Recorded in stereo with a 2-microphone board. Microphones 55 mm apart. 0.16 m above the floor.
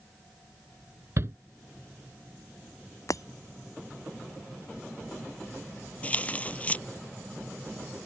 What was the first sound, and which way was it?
A shout, 50° right (ahead or behind).